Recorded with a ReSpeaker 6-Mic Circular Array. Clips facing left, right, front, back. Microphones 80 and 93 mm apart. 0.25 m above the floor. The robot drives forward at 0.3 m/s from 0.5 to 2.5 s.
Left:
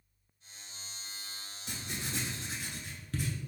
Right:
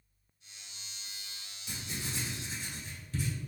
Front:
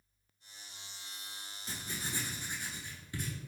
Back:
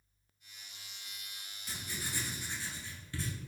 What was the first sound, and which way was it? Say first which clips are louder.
Writing: left 1 dB, front 1 dB; 60° left.